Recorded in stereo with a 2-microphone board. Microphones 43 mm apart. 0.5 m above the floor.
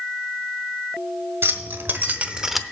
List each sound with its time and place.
1.4 s keys jangling: 65° right (ahead or behind), 1.5 m; by 2.6 s 5° left (ahead or behind), 0.7 m